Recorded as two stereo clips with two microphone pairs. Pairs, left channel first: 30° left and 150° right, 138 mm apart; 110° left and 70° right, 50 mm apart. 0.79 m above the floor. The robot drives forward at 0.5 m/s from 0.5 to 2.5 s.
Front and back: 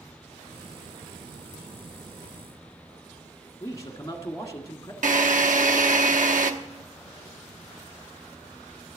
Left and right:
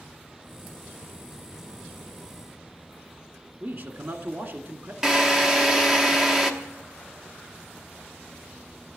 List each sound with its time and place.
3.6 s a man speaking: 35° right, 1.6 m
5.0 s a drill: 145° right, 0.9 m